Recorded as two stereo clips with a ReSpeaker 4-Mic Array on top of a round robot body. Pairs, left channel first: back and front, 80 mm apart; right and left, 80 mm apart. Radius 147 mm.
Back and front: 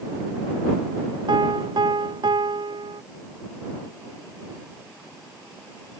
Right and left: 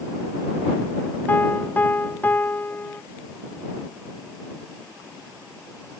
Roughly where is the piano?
Ahead.